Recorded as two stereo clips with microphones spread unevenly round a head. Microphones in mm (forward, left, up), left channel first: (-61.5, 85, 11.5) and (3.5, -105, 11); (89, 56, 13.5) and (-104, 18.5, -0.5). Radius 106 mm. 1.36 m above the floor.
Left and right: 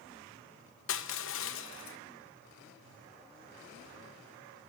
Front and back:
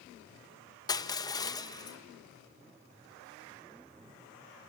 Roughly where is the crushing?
Left.